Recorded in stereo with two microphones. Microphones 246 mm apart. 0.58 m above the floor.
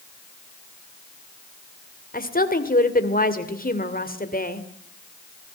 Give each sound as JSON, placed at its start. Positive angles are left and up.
{"t": 2.1, "sound": "a woman speaking", "side_deg": 35, "distance_m": 2.5}